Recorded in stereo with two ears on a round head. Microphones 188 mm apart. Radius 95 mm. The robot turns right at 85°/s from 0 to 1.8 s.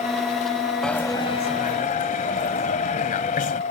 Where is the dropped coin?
5° left; by 3.6 s 85° left.